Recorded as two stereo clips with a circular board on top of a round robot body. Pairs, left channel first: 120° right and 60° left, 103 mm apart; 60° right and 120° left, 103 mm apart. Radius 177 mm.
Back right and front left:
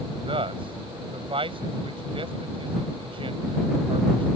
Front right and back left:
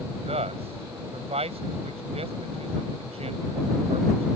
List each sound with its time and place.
0.2 s a man speaking: 95° left